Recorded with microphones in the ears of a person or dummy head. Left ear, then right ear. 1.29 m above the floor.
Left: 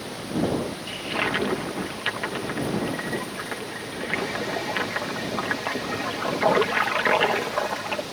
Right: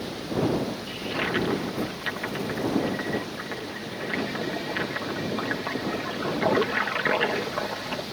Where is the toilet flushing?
35° left (ahead or behind).